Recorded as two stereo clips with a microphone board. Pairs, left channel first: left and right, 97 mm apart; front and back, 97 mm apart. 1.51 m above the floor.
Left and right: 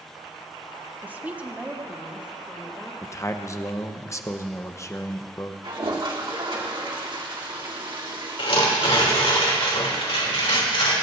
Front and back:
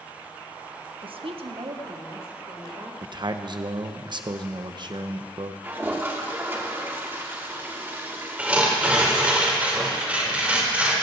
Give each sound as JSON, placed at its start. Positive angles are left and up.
{"t": 1.0, "sound": "a woman speaking", "azimuth_deg": -160, "distance_m": 0.9}
{"t": 3.0, "sound": "a man speaking", "azimuth_deg": 145, "distance_m": 0.9}
{"t": 5.6, "sound": "a toilet flushing", "azimuth_deg": -115, "distance_m": 1.8}
{"t": 8.4, "sound": "tearing paper", "azimuth_deg": 105, "distance_m": 3.0}